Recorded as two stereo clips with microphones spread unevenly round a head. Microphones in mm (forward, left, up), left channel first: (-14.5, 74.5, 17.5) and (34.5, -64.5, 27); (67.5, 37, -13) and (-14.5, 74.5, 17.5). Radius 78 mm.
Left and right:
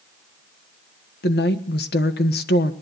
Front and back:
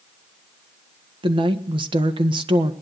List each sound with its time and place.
1.2 s a woman speaking: 135° left, 1.5 m